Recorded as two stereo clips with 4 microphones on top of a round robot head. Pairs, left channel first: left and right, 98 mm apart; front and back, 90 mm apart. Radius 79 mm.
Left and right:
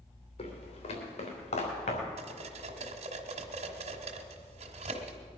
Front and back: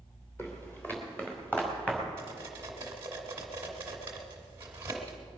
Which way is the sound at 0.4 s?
65° left.